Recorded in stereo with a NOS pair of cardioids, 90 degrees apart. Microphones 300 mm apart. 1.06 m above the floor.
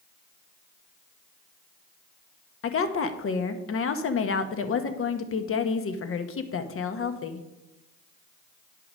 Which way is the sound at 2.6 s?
45° left.